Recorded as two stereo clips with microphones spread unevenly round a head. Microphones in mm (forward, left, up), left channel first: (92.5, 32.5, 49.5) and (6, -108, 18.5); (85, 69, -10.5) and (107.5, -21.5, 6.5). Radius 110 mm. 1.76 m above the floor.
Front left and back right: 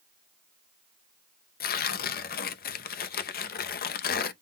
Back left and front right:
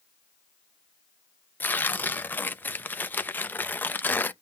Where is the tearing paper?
30° left, 0.6 m.